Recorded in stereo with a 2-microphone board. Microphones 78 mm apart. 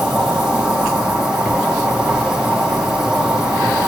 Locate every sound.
0.0 s an insect: 5° right (ahead or behind), 3 m